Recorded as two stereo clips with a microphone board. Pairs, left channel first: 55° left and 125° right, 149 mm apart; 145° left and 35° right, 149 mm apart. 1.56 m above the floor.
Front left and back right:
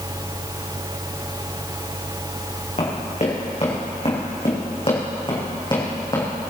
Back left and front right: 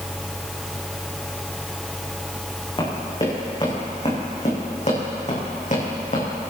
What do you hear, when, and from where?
2.8 s running footsteps: 95° left, 5.5 m; by 6.5 s 120° left, 5 m